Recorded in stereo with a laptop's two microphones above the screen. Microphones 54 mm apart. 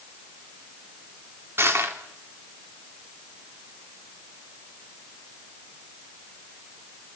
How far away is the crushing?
About 3 m.